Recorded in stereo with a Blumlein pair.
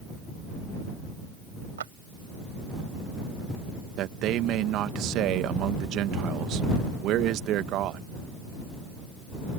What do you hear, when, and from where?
1.8 s a clap: 65° right
4.0 s a man speaking: 35° right